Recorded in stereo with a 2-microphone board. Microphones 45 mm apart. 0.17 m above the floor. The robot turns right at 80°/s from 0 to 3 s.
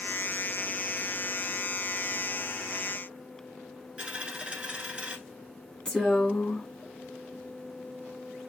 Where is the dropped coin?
25° right (ahead or behind), 1.1 m.